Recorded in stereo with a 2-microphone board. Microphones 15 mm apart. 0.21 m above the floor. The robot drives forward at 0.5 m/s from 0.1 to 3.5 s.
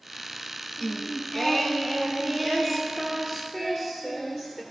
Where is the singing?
20° left (ahead or behind), 0.9 m; by 4.6 s 10° left (ahead or behind), 2 m.